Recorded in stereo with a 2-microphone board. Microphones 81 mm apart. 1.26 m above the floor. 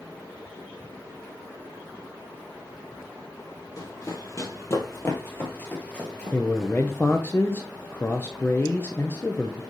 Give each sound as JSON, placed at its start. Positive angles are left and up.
{"t": 3.8, "sound": "running footsteps", "side_deg": 40, "distance_m": 2.5}
{"t": 6.3, "sound": "a man speaking", "side_deg": 25, "distance_m": 0.7}